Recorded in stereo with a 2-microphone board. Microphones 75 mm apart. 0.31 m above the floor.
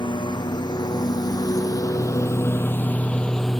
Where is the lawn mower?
70° left (ahead or behind); by 3.6 s centre (ahead or behind).